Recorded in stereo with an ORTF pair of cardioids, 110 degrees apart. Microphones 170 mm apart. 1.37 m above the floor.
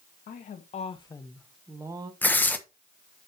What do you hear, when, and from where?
0.3 s a woman speaking: 55° left, 1.6 m; by 2.1 s 25° right, 1.3 m
2.2 s tearing paper: 10° left, 0.8 m